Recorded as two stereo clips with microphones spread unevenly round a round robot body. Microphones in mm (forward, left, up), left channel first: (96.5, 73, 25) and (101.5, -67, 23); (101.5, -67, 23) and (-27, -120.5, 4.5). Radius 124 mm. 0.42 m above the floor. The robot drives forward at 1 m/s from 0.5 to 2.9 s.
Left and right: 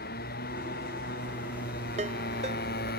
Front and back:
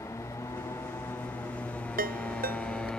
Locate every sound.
0.0 s a motorcycle: 105° left; by 3.0 s 110° left
2.0 s a ringtone: 150° right; by 2.9 s 155° right